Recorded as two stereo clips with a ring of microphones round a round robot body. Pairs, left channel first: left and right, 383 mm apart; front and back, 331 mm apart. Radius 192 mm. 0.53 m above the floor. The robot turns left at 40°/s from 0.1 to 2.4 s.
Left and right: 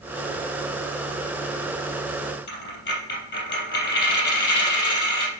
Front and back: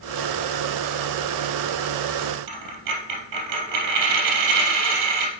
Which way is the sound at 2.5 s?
155° left.